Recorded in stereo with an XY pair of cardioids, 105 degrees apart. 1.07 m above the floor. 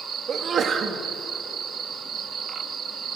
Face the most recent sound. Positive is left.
turn(degrees=-50)